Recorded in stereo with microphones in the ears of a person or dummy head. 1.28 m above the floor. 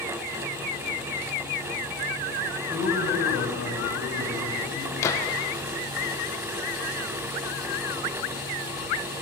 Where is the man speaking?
65° left (ahead or behind), 10 m; by 4.9 s 80° left, 10.5 m.